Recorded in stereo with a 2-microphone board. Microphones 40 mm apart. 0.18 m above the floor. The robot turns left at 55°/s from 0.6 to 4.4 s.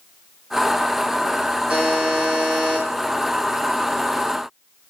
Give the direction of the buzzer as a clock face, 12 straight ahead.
4 o'clock.